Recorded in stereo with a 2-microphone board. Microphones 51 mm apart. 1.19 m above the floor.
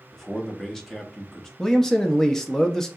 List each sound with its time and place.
0.1 s a man speaking: 10° left (ahead or behind), 0.7 m
1.6 s a man speaking: 10° left (ahead or behind), 0.5 m